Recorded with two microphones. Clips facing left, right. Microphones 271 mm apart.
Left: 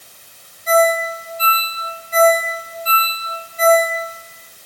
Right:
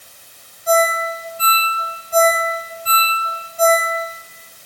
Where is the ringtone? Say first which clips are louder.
Left 2 dB; 75° right (ahead or behind), 2 m.